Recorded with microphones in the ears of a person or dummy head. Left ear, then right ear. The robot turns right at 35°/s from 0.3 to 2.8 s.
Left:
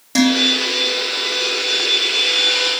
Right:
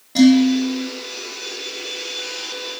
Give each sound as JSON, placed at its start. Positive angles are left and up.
{"t": 0.1, "sound": "dishes clattering", "side_deg": 60, "distance_m": 2.5}